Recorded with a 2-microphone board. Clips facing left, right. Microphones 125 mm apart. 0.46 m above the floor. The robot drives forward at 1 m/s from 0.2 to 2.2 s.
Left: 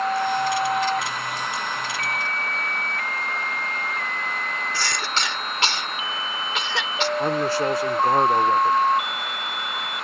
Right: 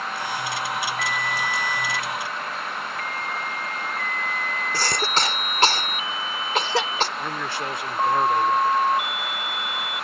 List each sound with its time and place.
4.7 s a cough: 40° right (ahead or behind)
7.2 s a man speaking: 35° left (ahead or behind)